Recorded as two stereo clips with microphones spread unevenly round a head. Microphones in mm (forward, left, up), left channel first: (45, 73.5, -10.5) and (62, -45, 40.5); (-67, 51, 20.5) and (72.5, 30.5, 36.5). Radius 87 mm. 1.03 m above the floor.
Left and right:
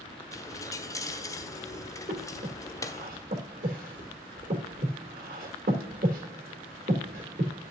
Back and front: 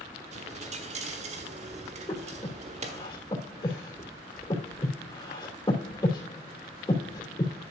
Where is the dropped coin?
30° left, 1.5 m.